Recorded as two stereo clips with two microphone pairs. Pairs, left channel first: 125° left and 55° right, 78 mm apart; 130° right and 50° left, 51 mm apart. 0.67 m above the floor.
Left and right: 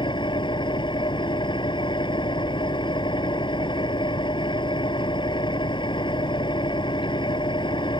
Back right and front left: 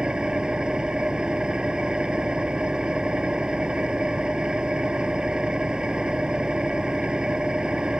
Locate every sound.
0.0 s an engine running: 125° left